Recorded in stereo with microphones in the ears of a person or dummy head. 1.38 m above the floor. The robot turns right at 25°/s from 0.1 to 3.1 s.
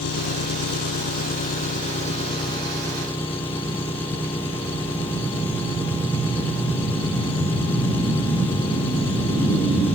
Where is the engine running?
95° left; by 9.9 s 170° left.